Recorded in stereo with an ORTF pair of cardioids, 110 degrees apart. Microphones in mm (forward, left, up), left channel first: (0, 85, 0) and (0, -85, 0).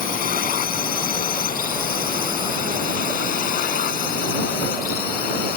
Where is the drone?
55° left; by 5.6 s 60° left.